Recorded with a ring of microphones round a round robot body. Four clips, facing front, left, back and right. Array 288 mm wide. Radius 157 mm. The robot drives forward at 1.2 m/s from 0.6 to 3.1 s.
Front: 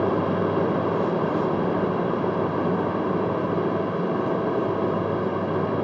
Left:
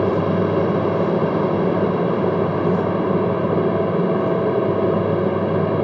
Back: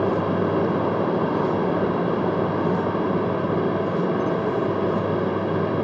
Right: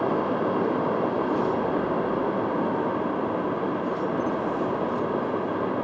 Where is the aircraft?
95° left.